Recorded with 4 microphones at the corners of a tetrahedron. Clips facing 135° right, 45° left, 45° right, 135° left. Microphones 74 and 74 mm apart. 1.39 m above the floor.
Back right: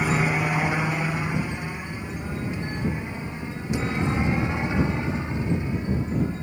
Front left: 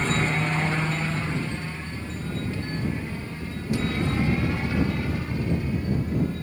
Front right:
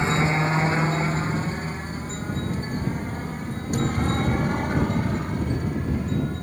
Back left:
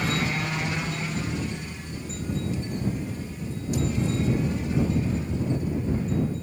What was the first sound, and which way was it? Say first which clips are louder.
A helicopter: back right 2 dB, front right 5 dB; 65° right.